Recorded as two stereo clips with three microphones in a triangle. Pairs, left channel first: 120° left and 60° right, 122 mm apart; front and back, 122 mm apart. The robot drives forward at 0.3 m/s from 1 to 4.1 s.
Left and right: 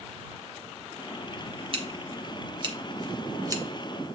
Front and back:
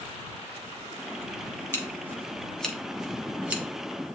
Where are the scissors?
65° right, 1.0 m; by 3.6 s 110° right, 1.0 m.